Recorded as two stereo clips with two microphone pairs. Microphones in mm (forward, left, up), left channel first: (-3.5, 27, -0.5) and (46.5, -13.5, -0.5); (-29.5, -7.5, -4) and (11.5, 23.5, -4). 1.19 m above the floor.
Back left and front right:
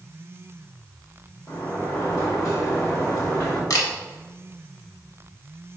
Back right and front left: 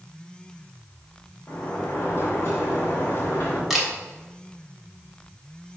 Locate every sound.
1.5 s a sliding door: 170° left, 2.5 m
3.7 s a camera shutter: 120° left, 1.5 m